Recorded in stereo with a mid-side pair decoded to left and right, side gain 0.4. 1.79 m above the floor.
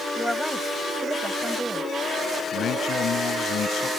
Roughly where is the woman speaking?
Ahead.